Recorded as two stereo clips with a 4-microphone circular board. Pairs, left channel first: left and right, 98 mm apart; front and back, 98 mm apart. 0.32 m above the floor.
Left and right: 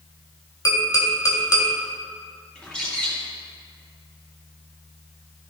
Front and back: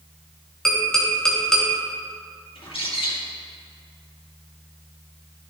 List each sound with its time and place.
0.7 s tapping: 80° left, 1.9 m
2.5 s a bird: 10° left, 2.5 m